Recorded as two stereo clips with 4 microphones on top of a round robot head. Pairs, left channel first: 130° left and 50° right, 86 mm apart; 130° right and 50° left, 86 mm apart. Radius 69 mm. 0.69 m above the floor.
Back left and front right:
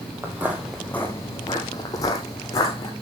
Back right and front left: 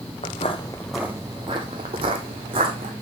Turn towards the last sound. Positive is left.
turn(degrees=75)